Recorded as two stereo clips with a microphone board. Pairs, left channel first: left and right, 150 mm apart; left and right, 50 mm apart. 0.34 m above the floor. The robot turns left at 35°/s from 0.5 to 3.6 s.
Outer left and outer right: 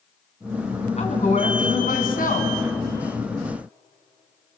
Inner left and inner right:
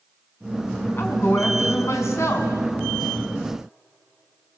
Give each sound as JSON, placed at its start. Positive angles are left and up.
{"t": 1.0, "sound": "a woman speaking", "azimuth_deg": 130, "distance_m": 3.5}